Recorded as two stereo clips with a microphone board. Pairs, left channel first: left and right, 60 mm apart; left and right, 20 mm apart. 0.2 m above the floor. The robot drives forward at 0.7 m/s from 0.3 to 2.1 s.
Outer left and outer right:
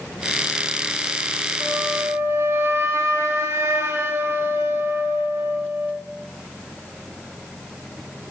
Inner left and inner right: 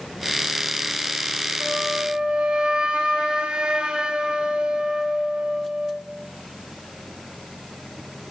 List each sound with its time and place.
1.6 s a flute: 40° right (ahead or behind), 1.9 m; by 6.0 s 45° right (ahead or behind), 1.7 m